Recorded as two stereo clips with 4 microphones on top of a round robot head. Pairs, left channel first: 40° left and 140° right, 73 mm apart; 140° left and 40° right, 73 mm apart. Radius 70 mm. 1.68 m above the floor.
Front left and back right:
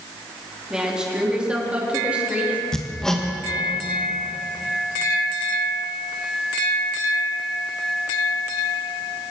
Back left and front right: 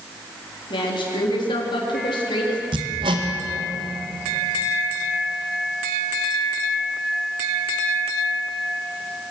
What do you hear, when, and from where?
0.7 s a woman speaking: 140° left, 4.5 m; by 2.6 s 150° left, 4 m
2.7 s hammering: 45° right, 1.9 m